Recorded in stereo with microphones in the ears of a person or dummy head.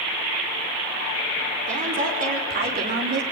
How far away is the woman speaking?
About 5 m.